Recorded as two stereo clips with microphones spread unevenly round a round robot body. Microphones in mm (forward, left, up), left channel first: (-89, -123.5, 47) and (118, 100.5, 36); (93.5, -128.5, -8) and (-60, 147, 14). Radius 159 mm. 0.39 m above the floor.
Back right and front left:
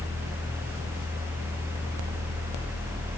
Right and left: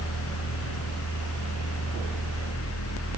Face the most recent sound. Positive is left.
No sound to turn to.